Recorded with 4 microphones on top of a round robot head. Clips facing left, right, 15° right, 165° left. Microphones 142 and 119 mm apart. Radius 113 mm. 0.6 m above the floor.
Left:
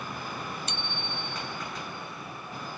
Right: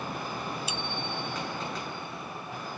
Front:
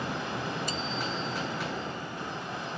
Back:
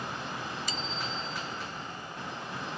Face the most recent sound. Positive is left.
turn(degrees=-175)